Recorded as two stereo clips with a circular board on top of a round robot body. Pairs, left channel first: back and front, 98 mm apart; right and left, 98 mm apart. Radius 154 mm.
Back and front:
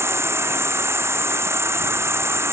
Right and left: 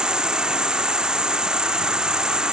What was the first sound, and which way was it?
An insect, 15° left.